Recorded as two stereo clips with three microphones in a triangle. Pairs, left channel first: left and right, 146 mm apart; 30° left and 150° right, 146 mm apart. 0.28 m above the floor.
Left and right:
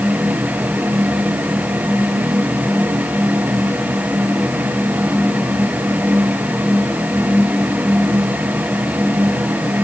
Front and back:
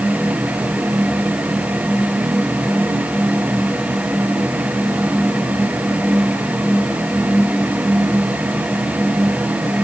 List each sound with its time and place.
Only background noise.